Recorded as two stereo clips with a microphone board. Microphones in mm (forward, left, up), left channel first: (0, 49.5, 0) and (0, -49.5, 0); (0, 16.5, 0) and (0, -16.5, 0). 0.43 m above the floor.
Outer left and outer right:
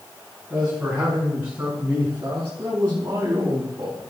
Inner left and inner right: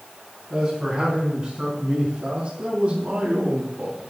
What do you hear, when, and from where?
0.5 s a man speaking: 5° right (ahead or behind), 4.5 m; by 4.0 s 40° right (ahead or behind), 3 m